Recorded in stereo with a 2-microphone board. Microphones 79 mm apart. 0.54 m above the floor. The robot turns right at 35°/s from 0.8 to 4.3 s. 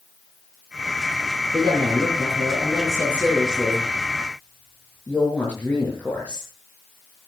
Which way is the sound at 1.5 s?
80° right.